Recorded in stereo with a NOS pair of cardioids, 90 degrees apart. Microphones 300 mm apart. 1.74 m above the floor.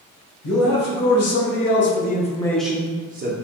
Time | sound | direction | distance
0.4 | a man speaking | 65° left | 1.3 m